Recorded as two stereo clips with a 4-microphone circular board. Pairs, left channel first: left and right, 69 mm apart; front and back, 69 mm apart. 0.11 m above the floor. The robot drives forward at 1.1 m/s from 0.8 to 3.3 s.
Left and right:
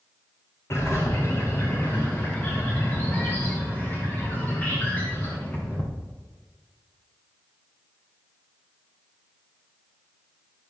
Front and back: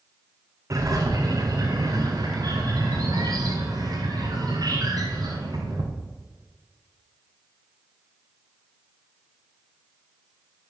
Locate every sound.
0.7 s a bird: 140° left, 4 m; by 5.8 s 155° left, 6 m